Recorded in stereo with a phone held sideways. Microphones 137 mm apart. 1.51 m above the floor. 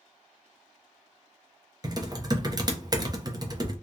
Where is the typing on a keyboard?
30° right (ahead or behind), 0.7 m.